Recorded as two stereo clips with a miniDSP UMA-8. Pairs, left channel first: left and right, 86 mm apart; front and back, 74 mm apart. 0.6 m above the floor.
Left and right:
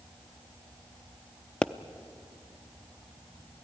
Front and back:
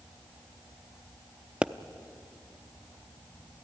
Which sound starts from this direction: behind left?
A pop, at 1.6 s.